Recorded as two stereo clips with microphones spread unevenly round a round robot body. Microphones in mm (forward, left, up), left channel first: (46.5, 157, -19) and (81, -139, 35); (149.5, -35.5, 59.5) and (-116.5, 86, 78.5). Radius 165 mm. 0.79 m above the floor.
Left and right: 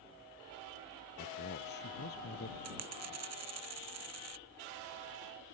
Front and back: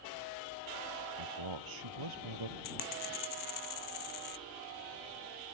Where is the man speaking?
160° left.